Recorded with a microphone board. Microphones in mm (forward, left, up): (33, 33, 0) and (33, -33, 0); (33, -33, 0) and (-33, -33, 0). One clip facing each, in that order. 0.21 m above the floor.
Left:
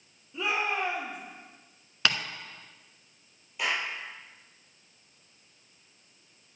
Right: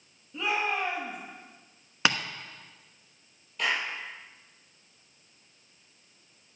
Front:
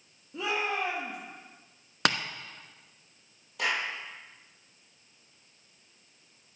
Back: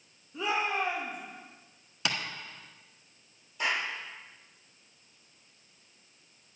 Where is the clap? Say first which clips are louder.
Right 1 dB, front 1 dB; 10° left, 5.5 m.